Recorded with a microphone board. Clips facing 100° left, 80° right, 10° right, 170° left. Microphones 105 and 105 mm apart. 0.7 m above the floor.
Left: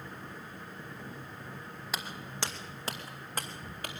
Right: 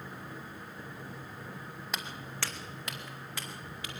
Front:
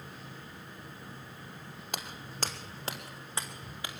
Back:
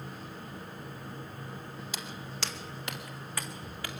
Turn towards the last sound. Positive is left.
turn(degrees=60)